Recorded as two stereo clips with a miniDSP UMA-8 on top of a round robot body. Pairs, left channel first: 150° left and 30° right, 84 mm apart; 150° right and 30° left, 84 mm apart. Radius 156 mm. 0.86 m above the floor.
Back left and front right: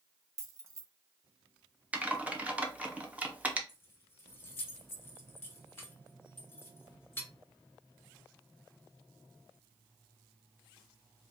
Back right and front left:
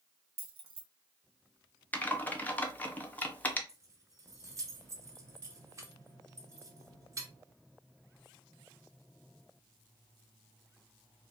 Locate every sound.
0.4 s keys jangling: 30° left, 0.7 m
1.9 s typing on a keyboard: 95° right, 1.0 m
3.7 s keys jangling: 85° left, 1.0 m